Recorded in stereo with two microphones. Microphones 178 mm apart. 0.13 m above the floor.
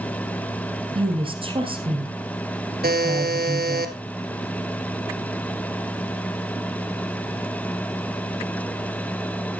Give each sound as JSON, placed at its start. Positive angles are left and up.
{"t": 0.9, "sound": "a woman speaking", "side_deg": -30, "distance_m": 2.5}
{"t": 2.8, "sound": "a buzzer", "side_deg": -60, "distance_m": 1.4}